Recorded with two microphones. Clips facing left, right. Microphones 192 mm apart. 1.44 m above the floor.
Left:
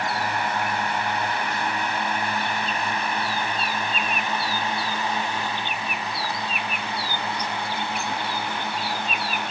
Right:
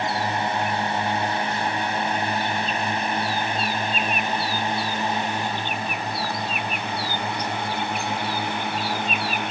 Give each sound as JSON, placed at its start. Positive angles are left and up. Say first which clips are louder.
{"t": 0.0, "sound": "a drone", "louder": "right 2 dB", "side_deg": -25}